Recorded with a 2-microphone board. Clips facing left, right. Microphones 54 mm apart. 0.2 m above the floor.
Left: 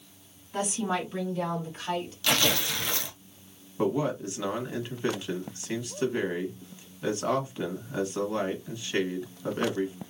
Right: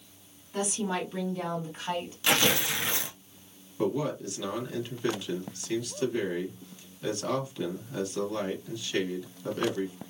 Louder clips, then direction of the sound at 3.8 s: Left 2 dB; 25° left (ahead or behind).